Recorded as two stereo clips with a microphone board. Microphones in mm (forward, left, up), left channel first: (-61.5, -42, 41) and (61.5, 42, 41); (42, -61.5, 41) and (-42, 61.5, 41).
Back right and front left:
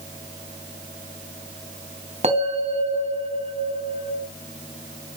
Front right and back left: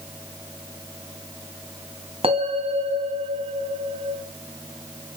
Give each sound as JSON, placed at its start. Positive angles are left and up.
{"t": 2.2, "sound": "a bell", "azimuth_deg": 75, "distance_m": 3.0}